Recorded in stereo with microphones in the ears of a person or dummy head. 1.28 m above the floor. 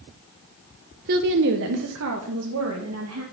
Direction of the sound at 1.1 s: 55° right (ahead or behind).